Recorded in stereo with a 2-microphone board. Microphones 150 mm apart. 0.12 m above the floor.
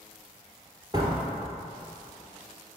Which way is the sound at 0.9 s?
25° right (ahead or behind).